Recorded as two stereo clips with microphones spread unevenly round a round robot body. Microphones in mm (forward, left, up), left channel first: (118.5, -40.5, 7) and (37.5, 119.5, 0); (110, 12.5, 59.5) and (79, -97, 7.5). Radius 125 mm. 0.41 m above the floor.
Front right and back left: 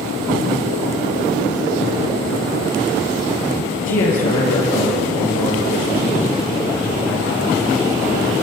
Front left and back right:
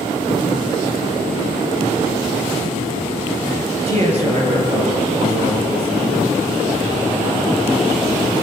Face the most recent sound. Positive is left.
turn(degrees=-70)